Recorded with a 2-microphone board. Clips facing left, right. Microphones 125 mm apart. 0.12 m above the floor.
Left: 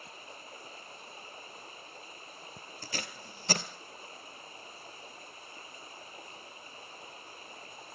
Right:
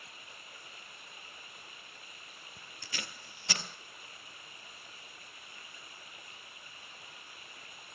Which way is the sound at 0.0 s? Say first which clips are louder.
Left 6 dB; 35° left (ahead or behind).